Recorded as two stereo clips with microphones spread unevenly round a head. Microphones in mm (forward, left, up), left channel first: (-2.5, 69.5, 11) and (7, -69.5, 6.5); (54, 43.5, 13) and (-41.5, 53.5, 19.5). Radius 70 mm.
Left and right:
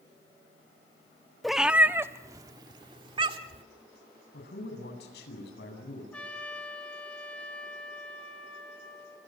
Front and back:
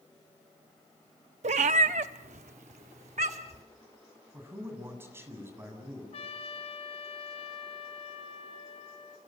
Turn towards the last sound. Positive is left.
turn(degrees=10)